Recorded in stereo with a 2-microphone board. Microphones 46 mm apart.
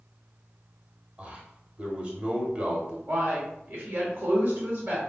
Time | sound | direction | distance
1.2 | a man speaking | 25° right (ahead or behind) | 1.1 m
3.1 | a man speaking | 35° right (ahead or behind) | 1.3 m